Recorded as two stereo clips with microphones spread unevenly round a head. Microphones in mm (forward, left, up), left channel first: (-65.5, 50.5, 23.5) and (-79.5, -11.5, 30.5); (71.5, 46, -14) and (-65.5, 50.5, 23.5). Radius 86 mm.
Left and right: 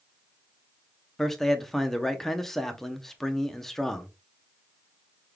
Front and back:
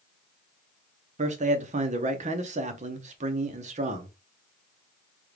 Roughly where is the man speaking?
Behind.